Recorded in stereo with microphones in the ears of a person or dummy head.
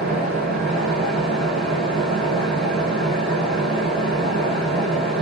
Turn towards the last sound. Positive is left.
turn(degrees=0)  # may be behind; listen again after turning